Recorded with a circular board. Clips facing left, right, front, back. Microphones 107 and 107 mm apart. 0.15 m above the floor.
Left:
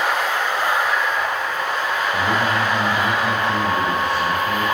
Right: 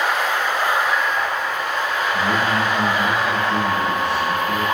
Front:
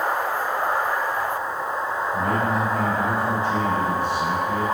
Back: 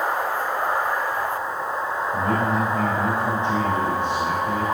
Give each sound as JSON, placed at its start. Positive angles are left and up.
{"t": 2.1, "sound": "a man speaking", "azimuth_deg": 120, "distance_m": 4.5}